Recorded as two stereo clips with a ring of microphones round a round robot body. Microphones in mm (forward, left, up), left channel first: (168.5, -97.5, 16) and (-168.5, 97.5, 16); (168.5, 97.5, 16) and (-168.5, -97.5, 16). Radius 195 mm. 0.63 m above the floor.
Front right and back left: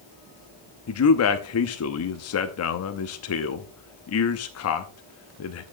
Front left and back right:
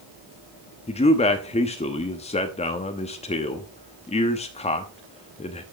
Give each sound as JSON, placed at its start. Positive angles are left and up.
{"t": 0.9, "sound": "a man speaking", "azimuth_deg": -35, "distance_m": 0.9}